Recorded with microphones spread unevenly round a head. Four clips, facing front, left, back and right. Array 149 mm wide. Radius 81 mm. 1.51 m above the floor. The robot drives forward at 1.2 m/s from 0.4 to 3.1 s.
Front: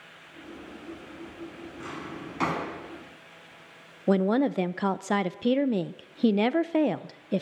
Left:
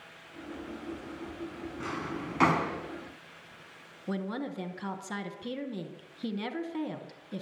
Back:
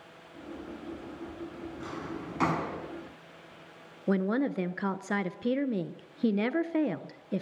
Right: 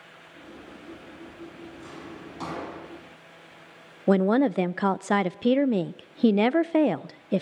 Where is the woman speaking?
75° right, 0.7 m.